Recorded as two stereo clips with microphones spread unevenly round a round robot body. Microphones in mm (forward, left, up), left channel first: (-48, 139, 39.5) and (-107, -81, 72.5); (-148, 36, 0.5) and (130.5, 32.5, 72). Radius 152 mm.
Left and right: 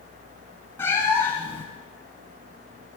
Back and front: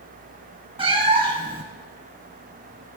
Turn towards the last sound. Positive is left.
turn(degrees=-15)